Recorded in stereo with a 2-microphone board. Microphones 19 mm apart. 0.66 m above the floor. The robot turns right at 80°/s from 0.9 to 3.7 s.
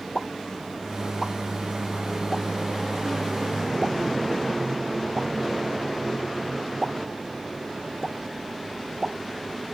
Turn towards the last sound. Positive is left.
turn(degrees=-30)  # may be behind; listen again after turning